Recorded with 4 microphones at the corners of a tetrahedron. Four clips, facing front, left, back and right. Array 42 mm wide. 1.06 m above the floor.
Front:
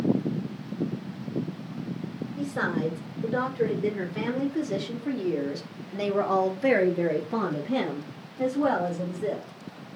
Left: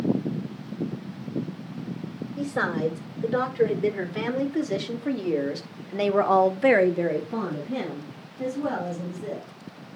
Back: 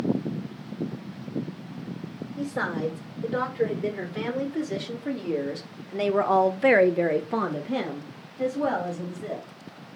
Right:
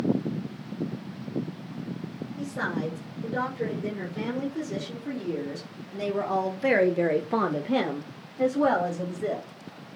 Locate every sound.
2.4 s a woman speaking: 105° left, 6.5 m; by 9.5 s 85° right, 3.5 m